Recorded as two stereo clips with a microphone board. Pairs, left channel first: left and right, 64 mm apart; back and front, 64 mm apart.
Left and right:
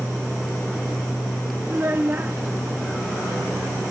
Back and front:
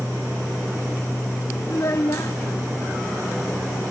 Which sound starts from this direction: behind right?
A child speaking, at 1.7 s.